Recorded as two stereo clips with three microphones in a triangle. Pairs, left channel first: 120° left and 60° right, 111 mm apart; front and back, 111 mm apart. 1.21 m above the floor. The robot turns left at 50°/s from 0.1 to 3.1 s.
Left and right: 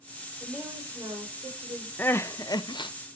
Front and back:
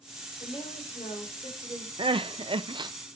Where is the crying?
170° right, 0.6 m; by 2.9 s 145° left, 0.6 m.